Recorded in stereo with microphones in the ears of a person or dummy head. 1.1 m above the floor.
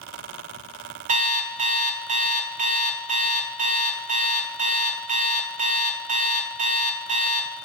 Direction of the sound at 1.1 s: 30° right (ahead or behind).